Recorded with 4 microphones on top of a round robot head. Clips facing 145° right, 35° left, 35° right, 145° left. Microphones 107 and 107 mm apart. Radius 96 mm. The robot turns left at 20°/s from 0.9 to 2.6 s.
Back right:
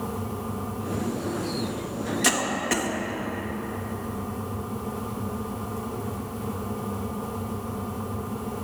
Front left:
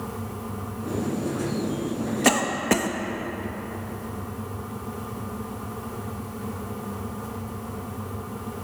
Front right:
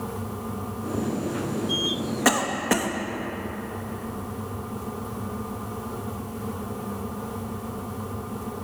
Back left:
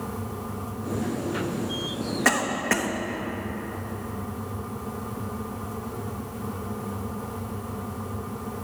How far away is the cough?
About 1.1 m.